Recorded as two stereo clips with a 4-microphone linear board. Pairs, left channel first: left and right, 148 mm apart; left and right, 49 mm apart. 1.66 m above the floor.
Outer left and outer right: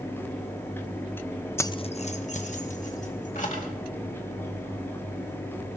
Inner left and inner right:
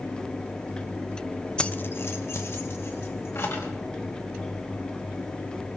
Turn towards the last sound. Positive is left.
turn(degrees=55)  # may be behind; listen again after turning